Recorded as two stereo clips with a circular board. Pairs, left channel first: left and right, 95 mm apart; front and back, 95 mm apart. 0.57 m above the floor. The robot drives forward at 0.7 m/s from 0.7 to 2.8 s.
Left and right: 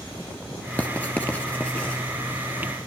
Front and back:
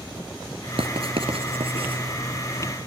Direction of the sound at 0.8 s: 165° left.